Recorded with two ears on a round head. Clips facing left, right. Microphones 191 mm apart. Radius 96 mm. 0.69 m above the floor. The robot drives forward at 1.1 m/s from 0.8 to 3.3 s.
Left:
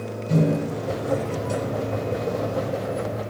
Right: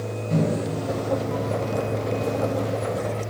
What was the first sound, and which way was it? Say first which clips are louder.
A microwave: left 2 dB; 75° left (ahead or behind).